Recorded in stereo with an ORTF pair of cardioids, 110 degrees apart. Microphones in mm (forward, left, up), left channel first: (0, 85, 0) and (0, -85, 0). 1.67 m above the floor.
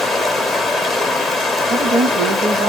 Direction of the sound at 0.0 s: Straight ahead.